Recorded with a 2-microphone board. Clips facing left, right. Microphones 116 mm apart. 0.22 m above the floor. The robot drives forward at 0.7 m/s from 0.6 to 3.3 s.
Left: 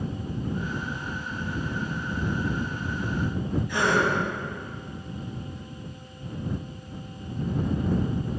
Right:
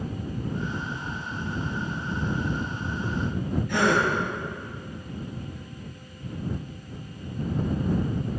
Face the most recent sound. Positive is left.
turn(degrees=-65)  # may be behind; listen again after turning